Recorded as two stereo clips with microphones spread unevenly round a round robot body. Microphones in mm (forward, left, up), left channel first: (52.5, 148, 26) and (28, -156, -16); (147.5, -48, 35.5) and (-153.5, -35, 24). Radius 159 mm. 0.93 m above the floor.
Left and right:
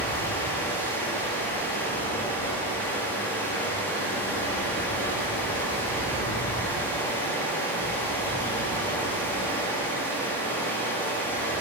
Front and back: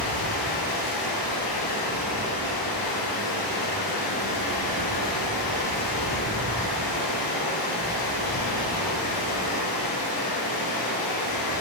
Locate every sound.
0.0 s running water: straight ahead, 1.5 m